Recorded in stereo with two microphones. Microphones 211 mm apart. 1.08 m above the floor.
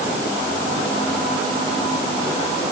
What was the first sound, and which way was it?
Only background noise.